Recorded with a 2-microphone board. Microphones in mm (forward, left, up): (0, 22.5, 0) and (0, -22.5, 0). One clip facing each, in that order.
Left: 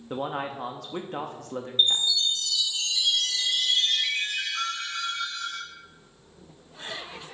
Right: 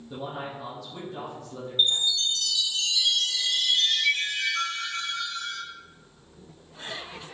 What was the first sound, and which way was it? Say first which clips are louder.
A man speaking: left 5 dB; 55° left (ahead or behind).